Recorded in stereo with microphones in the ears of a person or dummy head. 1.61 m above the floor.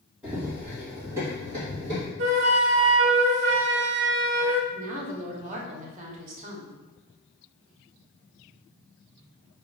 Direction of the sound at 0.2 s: 5° right (ahead or behind).